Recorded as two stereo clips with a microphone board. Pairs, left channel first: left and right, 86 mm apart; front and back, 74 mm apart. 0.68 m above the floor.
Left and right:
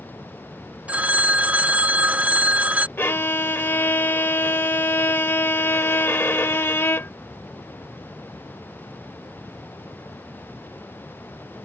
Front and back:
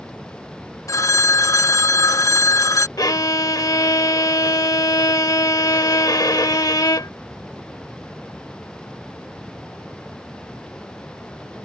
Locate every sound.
0.9 s a phone ringing: 20° right
3.0 s a violin: 30° left